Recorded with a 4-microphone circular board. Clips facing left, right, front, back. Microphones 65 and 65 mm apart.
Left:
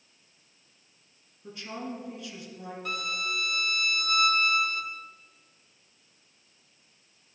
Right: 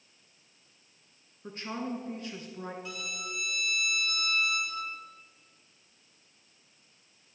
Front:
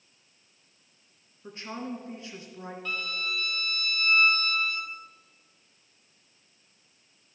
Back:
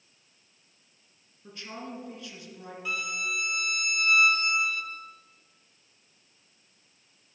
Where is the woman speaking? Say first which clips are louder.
Right 2 dB, front 4 dB; 50° right, 1.8 m.